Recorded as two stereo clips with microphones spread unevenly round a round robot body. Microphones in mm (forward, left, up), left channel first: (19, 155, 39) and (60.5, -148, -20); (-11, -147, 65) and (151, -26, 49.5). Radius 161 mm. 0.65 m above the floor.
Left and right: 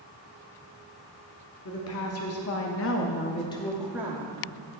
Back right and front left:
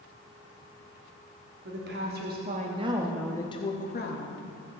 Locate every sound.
1.6 s a woman speaking: 50° left, 1.6 m; by 4.4 s 145° right, 1.2 m